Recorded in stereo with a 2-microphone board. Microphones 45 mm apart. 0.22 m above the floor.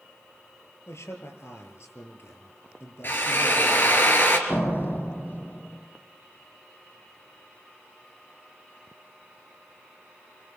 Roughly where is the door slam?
Left.